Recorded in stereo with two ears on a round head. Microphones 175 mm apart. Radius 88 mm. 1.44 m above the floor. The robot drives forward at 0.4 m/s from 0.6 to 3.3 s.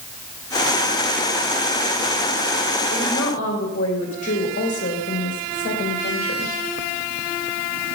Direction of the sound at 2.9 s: 40° left (ahead or behind).